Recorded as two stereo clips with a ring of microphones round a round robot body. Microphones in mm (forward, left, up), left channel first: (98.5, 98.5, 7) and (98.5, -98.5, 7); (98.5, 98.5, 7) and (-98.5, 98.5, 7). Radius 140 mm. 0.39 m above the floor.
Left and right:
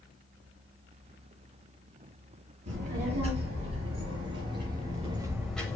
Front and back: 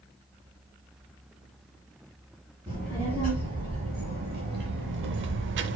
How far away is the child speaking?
About 1.7 m.